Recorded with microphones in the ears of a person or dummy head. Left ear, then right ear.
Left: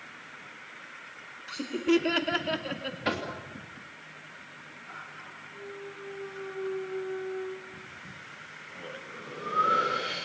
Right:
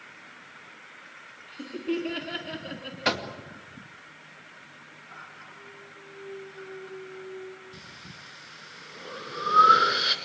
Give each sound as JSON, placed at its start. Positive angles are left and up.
{"t": 1.5, "sound": "laughter", "side_deg": 65, "distance_m": 3.0}
{"t": 3.0, "sound": "knocking", "side_deg": -40, "distance_m": 2.0}
{"t": 5.5, "sound": "a clunk", "side_deg": 65, "distance_m": 1.9}
{"t": 7.7, "sound": "breathing", "side_deg": -55, "distance_m": 2.5}